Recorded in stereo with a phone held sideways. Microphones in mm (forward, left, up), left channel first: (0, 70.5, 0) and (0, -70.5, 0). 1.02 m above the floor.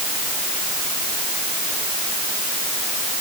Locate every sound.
Only background noise.